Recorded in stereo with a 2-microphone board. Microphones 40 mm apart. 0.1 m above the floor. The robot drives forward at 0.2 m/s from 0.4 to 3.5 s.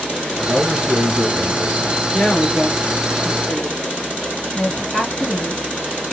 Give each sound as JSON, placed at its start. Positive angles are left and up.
{"t": 0.5, "sound": "a man speaking", "side_deg": -20, "distance_m": 1.4}
{"t": 2.1, "sound": "a woman speaking", "side_deg": 30, "distance_m": 1.8}
{"t": 4.5, "sound": "a woman speaking", "side_deg": 10, "distance_m": 2.5}